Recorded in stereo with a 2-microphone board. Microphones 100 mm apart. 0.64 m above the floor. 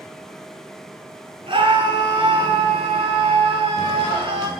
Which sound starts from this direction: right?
A scream, at 1.5 s.